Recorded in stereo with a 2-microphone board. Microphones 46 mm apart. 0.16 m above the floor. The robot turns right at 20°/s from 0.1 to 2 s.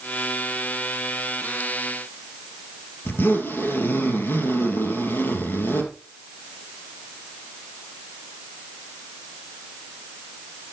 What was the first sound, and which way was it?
A zipper, 50° left (ahead or behind).